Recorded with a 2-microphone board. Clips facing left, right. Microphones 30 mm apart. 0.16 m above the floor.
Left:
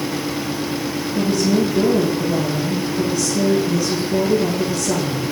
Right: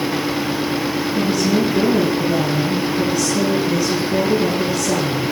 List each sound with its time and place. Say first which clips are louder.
1.1 s a woman speaking: left 1 dB; 10° right (ahead or behind), 7 m